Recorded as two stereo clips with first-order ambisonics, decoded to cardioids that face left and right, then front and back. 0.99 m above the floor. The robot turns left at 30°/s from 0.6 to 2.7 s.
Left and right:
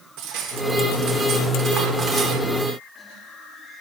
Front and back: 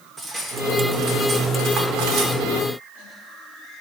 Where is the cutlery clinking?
110° right, 1.8 m; by 2.4 s 165° right, 1.8 m.